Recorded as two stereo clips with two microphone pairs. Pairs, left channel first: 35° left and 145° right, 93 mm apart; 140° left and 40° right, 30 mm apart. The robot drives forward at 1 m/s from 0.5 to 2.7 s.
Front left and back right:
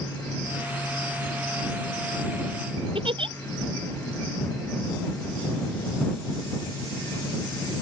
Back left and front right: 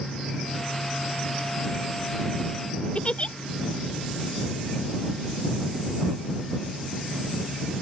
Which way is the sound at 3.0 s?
165° right.